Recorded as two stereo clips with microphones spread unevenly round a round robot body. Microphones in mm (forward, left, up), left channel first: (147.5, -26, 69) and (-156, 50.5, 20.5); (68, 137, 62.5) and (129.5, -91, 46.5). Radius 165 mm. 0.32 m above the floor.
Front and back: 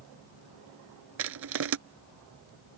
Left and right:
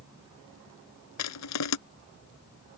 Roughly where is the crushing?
Behind left.